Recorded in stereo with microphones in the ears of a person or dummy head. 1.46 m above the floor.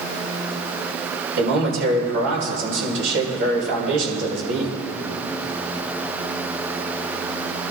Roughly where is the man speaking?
Right.